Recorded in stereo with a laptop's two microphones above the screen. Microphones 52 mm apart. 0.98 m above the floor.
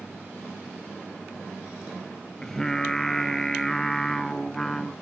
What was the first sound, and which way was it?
Singing, 10° left (ahead or behind).